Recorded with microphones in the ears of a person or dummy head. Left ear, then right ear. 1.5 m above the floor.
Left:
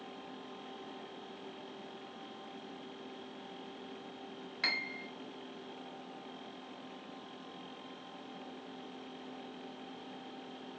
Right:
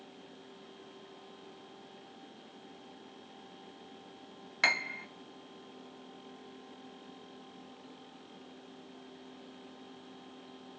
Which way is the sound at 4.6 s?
35° right (ahead or behind).